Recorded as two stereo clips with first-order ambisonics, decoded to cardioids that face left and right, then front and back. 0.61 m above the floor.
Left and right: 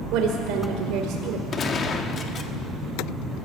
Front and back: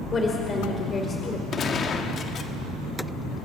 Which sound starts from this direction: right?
A woman speaking, at 0.1 s.